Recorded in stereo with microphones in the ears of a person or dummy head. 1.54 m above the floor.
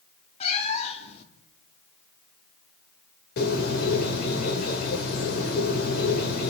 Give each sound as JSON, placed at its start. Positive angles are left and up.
{"t": 0.4, "sound": "a cat meowing", "side_deg": 30, "distance_m": 2.0}
{"t": 3.4, "sound": "a bird", "side_deg": 55, "distance_m": 4.5}